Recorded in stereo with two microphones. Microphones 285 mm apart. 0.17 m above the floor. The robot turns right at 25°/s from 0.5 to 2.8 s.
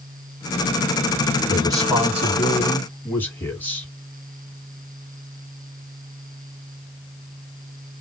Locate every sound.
1.5 s a man speaking: 25° right, 2 m; by 3.9 s 10° left, 2 m